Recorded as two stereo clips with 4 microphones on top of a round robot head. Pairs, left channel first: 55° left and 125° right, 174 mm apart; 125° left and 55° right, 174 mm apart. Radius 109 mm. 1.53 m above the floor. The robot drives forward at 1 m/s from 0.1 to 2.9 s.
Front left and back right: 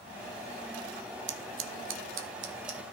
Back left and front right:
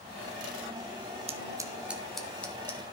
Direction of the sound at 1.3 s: 110° right.